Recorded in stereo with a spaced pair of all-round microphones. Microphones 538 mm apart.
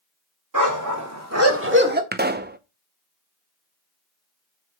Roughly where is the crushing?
I don't hear crushing.